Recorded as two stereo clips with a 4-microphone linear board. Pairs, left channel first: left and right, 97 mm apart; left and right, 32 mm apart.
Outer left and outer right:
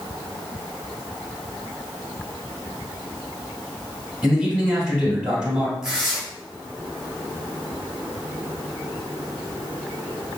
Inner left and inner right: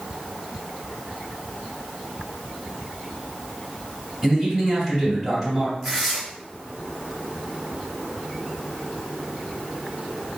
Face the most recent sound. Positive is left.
turn(degrees=-5)  # may be behind; listen again after turning